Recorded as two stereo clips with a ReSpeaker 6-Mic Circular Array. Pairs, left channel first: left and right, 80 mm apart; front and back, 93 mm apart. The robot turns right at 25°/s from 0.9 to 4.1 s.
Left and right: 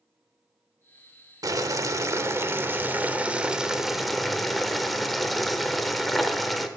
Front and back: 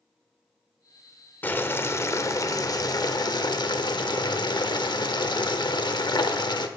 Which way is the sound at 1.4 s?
65° right.